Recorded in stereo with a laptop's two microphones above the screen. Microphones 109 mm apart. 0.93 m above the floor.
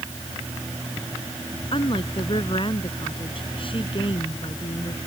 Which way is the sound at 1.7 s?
50° left (ahead or behind).